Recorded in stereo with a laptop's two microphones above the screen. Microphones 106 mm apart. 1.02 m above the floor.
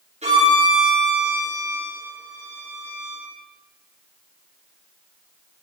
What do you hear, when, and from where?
0.2 s a violin: 85° right, 8 m